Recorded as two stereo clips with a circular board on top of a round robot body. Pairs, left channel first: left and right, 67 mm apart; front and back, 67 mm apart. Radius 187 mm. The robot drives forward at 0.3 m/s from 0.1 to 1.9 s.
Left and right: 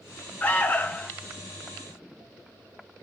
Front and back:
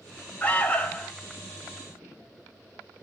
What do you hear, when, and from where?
0.4 s an alarm: 45° left, 1.8 m; by 1.1 s 50° left, 1.8 m